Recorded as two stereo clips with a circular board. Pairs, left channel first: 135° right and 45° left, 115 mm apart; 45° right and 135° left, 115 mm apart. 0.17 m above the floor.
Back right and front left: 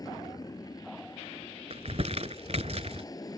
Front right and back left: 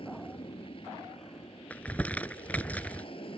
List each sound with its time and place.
0.0 s an aircraft: 80° right
1.7 s crumpling: 30° left